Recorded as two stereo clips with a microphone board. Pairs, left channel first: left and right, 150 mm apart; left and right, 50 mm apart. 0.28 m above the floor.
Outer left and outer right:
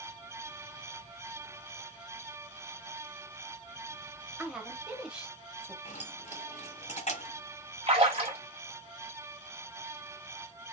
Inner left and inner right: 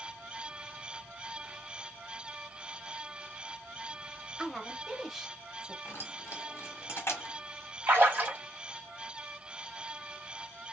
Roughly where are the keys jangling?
Left.